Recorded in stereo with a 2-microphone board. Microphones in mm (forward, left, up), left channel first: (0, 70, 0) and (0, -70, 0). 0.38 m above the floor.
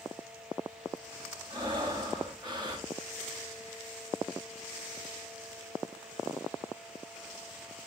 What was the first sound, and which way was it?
Breathing, 35° right (ahead or behind).